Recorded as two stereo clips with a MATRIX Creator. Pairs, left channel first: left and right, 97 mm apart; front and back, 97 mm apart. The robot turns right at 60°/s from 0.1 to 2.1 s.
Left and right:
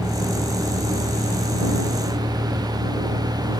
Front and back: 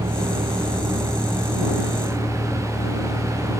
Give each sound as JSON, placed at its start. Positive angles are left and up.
{"t": 0.0, "sound": "a vehicle", "azimuth_deg": 180}